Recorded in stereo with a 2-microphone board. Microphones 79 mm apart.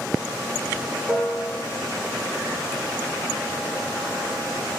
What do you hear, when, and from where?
1.1 s a piano: 15° right (ahead or behind), 0.5 m